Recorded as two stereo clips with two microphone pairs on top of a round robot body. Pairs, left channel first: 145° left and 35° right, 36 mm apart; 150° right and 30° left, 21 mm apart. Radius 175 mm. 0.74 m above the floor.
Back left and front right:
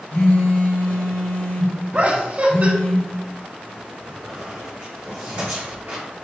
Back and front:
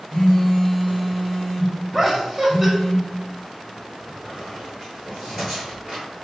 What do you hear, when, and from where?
0.1 s a phone buzzing: 155° left, 1.6 m
1.9 s laughter: 70° right, 1.1 m
4.1 s a squeak: 40° right, 0.9 m